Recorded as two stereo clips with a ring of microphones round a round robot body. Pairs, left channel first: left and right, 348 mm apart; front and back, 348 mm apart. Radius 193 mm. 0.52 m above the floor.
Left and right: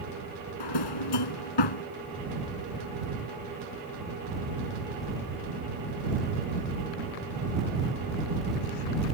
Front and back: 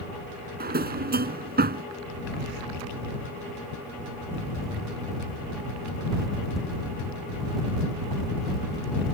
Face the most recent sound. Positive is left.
turn(degrees=115)